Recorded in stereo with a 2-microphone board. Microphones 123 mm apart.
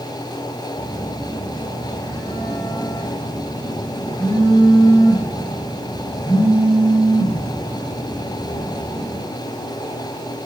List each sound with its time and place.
0.8 s a phone buzzing: 25° left (ahead or behind), 5 m